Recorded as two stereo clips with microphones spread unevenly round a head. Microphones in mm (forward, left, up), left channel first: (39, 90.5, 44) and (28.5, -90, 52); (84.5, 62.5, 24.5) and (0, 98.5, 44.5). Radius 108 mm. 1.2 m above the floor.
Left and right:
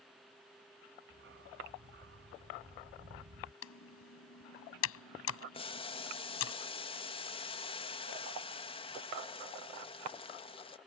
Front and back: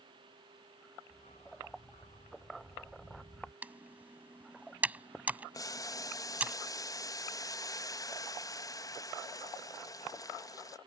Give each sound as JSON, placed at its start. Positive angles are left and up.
{"t": 1.1, "sound": "a dog barking", "azimuth_deg": -75}
{"t": 3.6, "sound": "typing on a keyboard", "azimuth_deg": 90}
{"t": 5.5, "sound": "boiling", "azimuth_deg": 25}